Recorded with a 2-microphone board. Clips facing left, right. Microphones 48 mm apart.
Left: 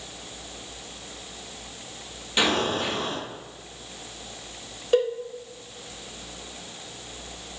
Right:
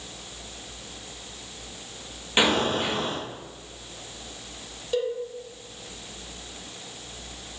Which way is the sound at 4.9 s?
45° left (ahead or behind).